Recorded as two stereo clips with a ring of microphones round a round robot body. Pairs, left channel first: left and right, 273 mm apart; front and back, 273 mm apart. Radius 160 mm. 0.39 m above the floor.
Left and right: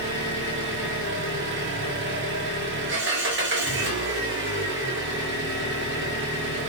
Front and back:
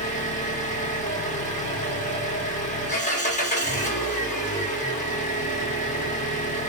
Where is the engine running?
55° right, 1.1 m.